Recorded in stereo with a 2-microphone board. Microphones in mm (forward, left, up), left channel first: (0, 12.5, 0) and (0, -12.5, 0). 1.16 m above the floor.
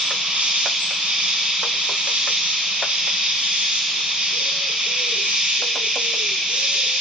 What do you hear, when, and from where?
0.0 s an insect: 70° right (ahead or behind), 3 m